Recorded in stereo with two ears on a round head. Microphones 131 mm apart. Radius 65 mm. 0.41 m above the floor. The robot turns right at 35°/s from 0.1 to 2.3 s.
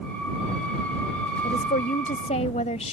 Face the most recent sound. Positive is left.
turn(degrees=125)